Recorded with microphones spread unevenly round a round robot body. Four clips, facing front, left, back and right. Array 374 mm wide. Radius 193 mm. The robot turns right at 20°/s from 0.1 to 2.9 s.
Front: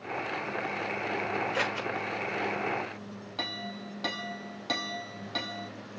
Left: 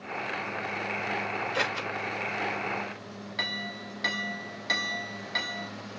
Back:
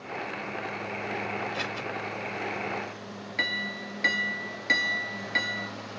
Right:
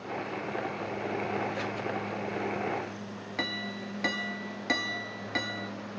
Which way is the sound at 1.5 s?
45° left.